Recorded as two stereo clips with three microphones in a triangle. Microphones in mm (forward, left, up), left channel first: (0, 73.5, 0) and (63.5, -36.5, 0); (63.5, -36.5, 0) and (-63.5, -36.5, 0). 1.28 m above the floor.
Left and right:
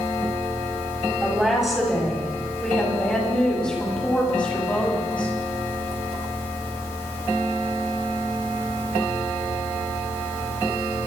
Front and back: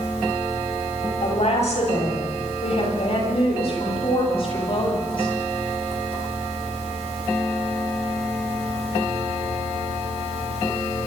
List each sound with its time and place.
1.2 s a woman speaking: 25° left, 7.5 m; by 5.3 s 45° left, 9.5 m